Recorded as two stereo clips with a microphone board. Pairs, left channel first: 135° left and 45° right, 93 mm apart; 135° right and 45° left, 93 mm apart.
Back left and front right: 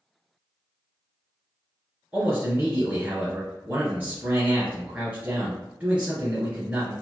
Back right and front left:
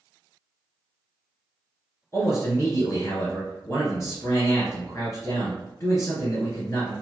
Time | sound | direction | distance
2.1 | a man speaking | 110° right | 2.0 m